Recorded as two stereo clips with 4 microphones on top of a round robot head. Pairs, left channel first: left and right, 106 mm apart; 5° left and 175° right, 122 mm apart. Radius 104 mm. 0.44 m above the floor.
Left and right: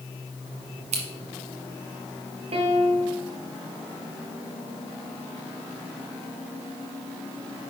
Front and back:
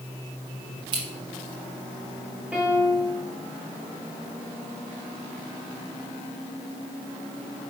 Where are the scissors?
115° right, 1.2 m.